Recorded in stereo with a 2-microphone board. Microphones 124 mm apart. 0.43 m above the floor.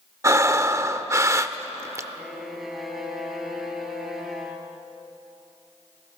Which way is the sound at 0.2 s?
25° right (ahead or behind).